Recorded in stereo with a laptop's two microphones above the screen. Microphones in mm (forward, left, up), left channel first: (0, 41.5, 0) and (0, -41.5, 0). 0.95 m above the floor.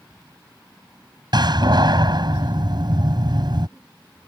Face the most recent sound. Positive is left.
turn(degrees=-60)  # may be behind; listen again after turning